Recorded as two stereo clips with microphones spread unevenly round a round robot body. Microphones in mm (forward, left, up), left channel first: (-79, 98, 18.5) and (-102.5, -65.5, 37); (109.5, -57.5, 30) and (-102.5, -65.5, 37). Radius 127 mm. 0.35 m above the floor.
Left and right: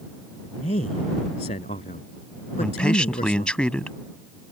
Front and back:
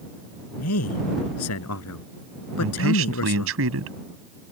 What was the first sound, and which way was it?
A man speaking, 20° left.